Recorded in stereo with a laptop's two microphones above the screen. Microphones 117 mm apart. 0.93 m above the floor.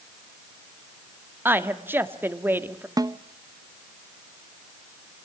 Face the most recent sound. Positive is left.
turn(degrees=-30)  # may be behind; listen again after turning